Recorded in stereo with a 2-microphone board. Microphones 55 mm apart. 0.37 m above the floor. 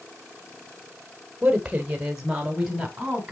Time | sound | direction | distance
1.4 | a woman speaking | 15° right (ahead or behind) | 1.2 m